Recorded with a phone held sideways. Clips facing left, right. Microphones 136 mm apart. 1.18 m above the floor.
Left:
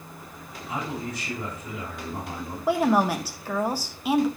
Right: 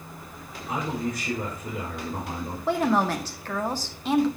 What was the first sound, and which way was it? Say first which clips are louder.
A man speaking: right 3 dB; 65° right (ahead or behind).